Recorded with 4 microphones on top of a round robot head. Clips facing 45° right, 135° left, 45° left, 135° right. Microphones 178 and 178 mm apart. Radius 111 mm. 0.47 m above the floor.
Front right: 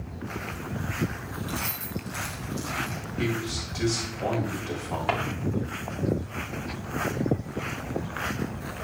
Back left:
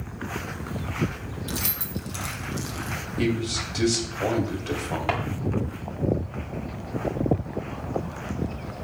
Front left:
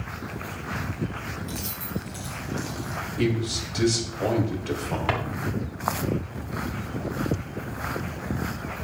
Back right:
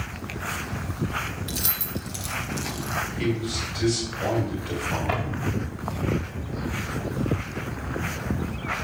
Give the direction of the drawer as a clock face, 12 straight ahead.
10 o'clock.